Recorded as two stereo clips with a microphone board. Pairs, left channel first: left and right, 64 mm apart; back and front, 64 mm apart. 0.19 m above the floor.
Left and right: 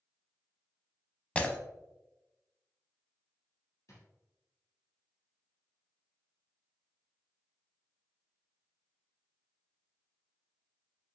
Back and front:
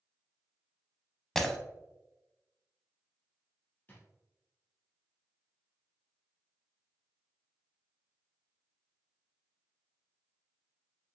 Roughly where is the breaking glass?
Left.